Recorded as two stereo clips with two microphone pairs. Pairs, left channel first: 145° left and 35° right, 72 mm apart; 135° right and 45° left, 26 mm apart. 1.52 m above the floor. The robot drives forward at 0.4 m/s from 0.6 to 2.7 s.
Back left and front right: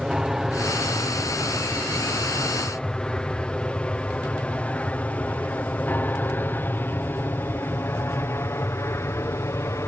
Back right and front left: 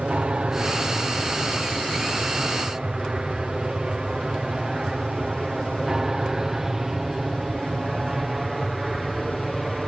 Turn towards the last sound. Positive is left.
turn(degrees=125)